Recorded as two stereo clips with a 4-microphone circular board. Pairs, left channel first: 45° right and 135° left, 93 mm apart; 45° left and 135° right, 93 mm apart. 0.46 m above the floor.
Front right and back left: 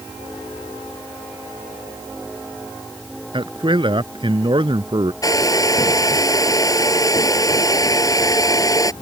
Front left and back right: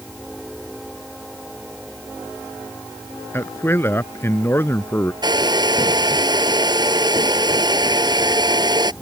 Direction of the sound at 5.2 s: 95° right.